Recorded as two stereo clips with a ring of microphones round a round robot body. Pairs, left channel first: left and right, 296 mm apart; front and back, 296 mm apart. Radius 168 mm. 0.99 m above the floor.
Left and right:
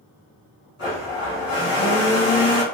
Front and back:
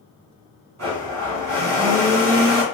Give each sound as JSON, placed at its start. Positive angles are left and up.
{"t": 0.8, "sound": "a blender", "azimuth_deg": 145, "distance_m": 1.9}